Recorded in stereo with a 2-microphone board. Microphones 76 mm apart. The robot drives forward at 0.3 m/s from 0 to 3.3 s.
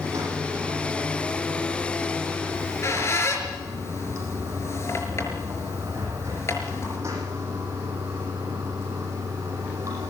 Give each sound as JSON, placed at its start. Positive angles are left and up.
{"t": 0.0, "sound": "running water", "side_deg": -45, "distance_m": 8.0}
{"t": 2.5, "sound": "a squeak", "side_deg": 40, "distance_m": 5.0}